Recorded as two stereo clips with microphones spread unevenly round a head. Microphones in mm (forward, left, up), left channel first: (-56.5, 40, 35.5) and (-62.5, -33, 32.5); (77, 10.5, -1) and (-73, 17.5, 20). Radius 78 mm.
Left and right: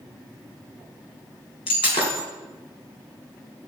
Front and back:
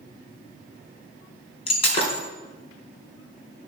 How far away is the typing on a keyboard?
I don't hear typing on a keyboard.